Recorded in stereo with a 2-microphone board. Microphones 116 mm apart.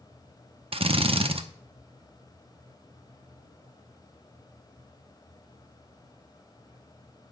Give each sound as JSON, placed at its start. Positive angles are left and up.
{"t": 0.7, "sound": "a drill", "side_deg": -55, "distance_m": 0.5}